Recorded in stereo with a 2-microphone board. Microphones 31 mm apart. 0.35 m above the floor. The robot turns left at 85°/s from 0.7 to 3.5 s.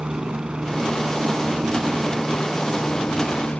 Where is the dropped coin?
No dropped coin in this recording.